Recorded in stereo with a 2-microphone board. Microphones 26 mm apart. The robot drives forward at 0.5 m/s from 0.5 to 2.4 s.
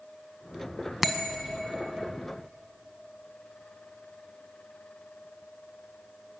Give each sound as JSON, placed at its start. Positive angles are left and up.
{"t": 1.0, "sound": "a bell", "side_deg": -10, "distance_m": 1.7}